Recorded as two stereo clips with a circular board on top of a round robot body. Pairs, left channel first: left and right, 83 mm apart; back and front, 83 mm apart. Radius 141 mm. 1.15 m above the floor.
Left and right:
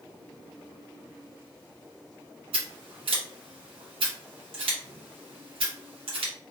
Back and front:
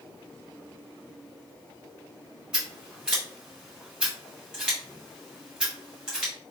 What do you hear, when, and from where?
2.5 s scissors: 80° right, 0.6 m